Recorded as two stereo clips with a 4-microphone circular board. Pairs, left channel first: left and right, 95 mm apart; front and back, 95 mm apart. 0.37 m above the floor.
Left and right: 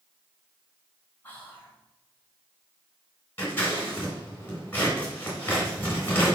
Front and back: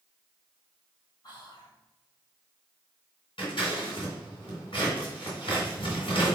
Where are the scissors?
25° left, 3.5 m.